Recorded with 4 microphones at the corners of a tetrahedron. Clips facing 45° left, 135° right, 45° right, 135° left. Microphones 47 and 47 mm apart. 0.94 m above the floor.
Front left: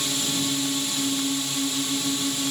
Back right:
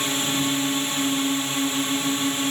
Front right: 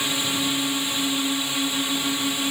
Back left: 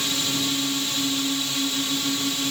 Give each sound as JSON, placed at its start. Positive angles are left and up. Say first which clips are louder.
{"t": 0.0, "sound": "a drone", "louder": "back right 3 dB, front right 1 dB", "azimuth_deg": -105}